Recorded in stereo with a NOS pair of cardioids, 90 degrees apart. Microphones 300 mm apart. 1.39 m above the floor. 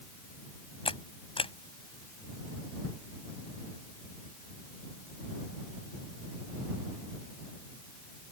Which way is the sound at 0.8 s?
20° left.